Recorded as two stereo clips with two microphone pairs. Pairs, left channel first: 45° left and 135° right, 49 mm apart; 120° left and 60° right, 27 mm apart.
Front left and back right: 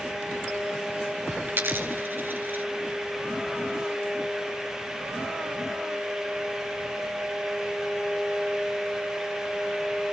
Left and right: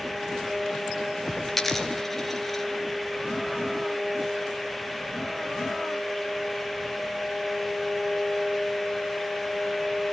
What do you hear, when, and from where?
1.5 s a dropped coin: 160° right, 2.5 m